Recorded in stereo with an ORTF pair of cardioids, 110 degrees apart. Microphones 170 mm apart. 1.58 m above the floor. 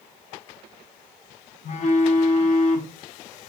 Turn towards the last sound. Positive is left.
turn(degrees=40)